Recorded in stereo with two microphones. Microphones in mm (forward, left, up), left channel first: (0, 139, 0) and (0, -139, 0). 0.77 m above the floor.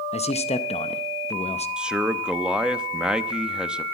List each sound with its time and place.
0.1 s a man speaking: 25° left (ahead or behind), 0.7 m
1.8 s a man speaking: 5° right (ahead or behind), 0.7 m